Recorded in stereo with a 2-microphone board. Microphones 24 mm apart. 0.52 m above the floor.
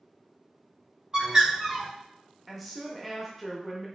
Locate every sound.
1.1 s a bird: 25° right (ahead or behind), 1.7 m
2.5 s a woman speaking: centre (ahead or behind), 0.6 m